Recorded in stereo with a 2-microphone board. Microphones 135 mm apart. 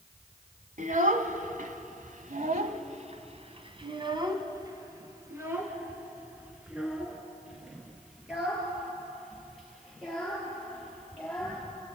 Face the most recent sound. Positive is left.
turn(degrees=5)  # may be behind; listen again after turning